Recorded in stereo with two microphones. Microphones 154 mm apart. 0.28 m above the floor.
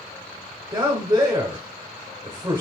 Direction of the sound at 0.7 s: 30° right (ahead or behind).